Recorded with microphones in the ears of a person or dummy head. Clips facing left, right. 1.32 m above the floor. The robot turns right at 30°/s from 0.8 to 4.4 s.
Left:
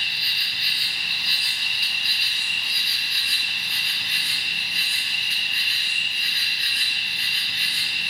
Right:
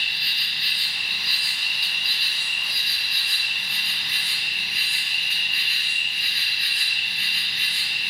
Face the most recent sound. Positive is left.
turn(degrees=140)